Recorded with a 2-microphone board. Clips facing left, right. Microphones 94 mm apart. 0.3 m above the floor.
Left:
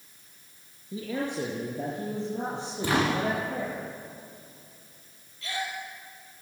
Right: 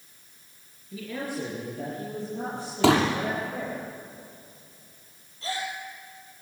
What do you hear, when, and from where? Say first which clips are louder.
0.9 s a man speaking: left 2 dB; 25° left (ahead or behind), 5 m; by 3.8 s 20° left (ahead or behind), 8.5 m
2.8 s a pop: right 6 dB; 75° right (ahead or behind), 6.5 m
5.4 s a gasp: right 2 dB; 30° right (ahead or behind), 6 m